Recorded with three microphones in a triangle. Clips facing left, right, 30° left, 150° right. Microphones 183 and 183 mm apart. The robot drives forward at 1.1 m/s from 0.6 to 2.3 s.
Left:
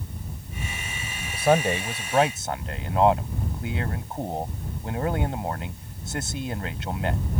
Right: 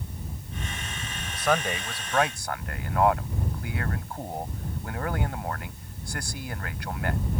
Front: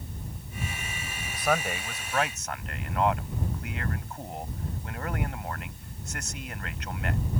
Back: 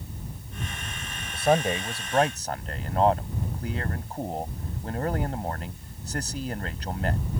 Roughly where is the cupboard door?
No cupboard door in this recording.